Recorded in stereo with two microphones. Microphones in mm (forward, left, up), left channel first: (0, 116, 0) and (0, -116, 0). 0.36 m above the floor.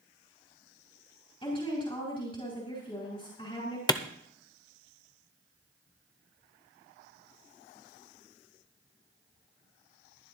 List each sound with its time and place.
1.4 s a woman speaking: 25° left (ahead or behind), 4 m
3.9 s a clap: 15° left (ahead or behind), 0.6 m